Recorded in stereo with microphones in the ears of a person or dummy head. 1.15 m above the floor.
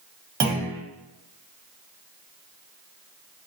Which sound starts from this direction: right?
A clunk, at 0.4 s.